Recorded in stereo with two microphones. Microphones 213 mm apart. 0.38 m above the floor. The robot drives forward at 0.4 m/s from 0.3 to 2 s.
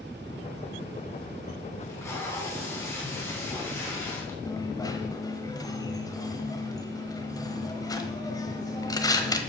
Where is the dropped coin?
15° left (ahead or behind), 0.9 m.